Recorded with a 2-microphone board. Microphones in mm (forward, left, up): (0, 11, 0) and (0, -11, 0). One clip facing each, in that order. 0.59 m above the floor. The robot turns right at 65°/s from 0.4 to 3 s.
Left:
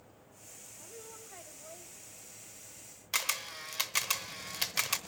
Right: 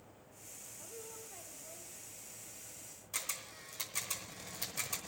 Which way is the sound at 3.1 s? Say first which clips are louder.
Left 9 dB; 60° left (ahead or behind).